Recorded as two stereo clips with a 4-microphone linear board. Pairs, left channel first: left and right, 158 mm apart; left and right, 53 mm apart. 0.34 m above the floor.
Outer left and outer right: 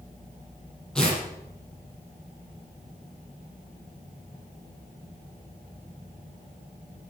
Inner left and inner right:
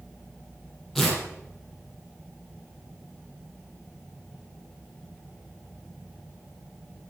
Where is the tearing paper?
5° left (ahead or behind), 6.5 m.